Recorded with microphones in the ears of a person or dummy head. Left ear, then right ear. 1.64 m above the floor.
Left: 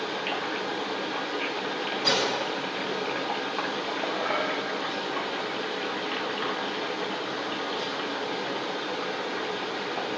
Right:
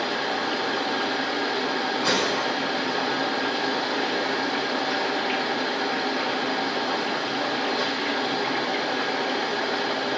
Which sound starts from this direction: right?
A fan, at 0.0 s.